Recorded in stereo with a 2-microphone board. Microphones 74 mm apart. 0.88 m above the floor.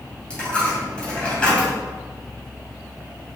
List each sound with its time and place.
0.3 s a dropped coin: 15° left (ahead or behind), 3 m